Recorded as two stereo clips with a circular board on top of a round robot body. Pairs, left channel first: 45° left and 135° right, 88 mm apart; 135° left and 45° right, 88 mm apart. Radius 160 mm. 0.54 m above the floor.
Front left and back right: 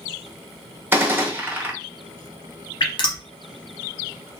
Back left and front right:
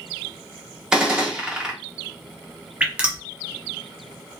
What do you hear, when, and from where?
0.9 s a gunshot: 115° right, 1.2 m
2.8 s dripping: 30° left, 1.0 m